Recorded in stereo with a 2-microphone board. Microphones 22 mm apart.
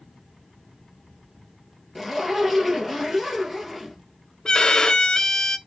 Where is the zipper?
5° right (ahead or behind), 1.7 m.